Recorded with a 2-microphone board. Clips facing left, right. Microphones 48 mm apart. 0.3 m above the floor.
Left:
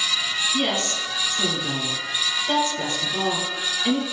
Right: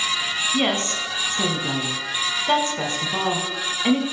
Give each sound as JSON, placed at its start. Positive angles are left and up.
{"t": 0.5, "sound": "a woman speaking", "side_deg": -35, "distance_m": 1.5}